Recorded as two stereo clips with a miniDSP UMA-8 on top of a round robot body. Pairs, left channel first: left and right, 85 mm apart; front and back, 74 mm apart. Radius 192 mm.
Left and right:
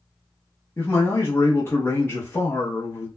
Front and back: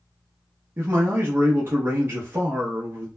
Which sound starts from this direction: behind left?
A man speaking, at 0.8 s.